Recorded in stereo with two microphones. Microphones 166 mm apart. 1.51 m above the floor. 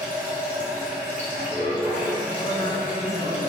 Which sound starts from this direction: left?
A man speaking, at 2.4 s.